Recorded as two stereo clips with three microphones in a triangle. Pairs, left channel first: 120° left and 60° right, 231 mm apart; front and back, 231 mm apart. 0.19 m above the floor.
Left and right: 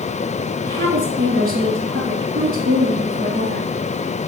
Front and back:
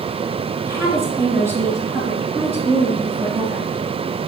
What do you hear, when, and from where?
0.7 s a woman speaking: 105° right, 2 m